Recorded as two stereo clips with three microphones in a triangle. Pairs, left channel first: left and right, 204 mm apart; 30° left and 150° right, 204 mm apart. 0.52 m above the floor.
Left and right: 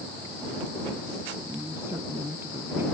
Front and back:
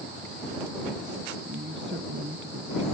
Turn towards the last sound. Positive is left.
turn(degrees=-170)